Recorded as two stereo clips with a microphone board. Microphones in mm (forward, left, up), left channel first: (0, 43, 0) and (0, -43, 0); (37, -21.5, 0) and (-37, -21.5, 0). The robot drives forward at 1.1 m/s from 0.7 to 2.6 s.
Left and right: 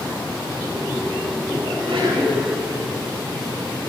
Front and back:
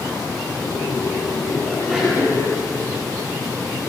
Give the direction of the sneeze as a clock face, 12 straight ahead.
3 o'clock.